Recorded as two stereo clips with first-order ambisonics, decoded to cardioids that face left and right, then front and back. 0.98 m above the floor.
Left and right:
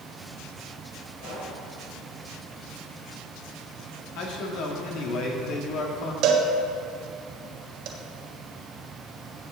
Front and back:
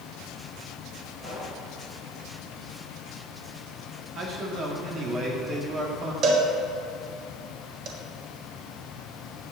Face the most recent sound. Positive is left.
turn(degrees=-130)